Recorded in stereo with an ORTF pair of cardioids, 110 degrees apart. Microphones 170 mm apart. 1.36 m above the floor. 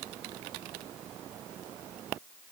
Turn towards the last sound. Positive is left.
No sound to turn to.